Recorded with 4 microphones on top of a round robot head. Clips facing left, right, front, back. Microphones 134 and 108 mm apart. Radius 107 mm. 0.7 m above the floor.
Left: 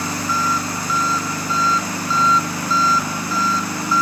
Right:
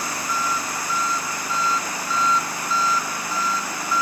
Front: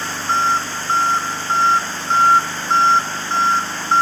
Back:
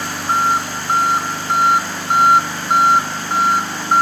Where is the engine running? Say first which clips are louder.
Left 4 dB, back 1 dB; 100° left.